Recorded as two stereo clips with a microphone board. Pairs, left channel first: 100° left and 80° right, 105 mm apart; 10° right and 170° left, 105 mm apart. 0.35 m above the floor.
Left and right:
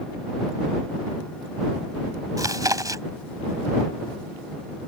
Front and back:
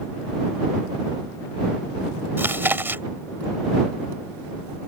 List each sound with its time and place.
2.4 s chewing: 125° right